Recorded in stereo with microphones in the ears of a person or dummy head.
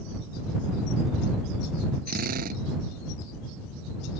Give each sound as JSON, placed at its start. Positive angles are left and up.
{"t": 2.1, "sound": "a drill", "side_deg": -50}